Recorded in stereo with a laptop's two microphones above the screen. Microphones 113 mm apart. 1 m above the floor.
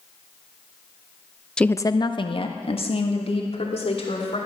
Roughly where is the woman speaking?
Centre.